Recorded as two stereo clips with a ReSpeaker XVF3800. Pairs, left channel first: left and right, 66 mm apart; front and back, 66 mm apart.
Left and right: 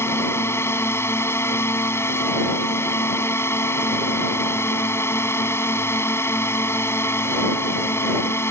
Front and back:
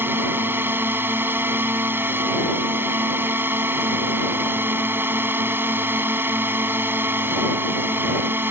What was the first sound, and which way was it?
A drone, 130° left.